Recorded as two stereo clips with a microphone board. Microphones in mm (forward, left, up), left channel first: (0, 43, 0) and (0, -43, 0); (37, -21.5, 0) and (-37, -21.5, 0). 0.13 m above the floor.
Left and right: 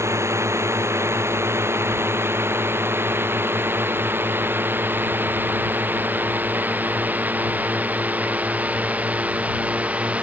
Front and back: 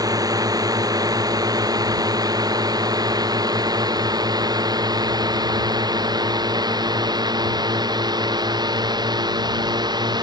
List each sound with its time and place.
0.0 s a drone: 145° right; by 10.2 s 165° right